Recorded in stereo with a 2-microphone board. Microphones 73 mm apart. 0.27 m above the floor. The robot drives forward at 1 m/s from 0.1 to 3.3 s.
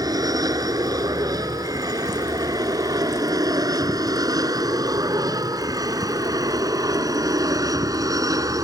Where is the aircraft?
70° right (ahead or behind); by 8.7 s 60° right (ahead or behind).